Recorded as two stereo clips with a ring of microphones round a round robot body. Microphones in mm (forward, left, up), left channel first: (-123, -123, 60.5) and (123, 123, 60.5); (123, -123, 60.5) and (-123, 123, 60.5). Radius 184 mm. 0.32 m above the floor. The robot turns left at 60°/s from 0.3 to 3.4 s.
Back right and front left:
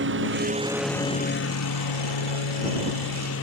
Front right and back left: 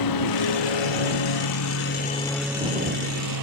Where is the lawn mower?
15° right; by 3.4 s 170° left.